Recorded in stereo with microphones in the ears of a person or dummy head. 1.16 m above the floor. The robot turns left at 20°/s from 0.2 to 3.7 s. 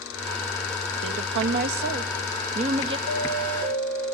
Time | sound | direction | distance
1.0 | a woman speaking | 110° right | 1.4 m
3.1 | an alarm | 65° right (ahead or behind) | 2.5 m